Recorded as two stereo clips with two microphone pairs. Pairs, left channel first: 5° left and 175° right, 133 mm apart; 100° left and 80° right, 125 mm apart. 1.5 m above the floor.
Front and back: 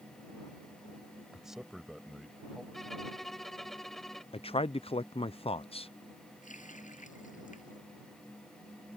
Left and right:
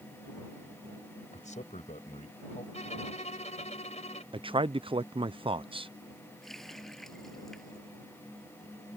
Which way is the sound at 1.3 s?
100° left.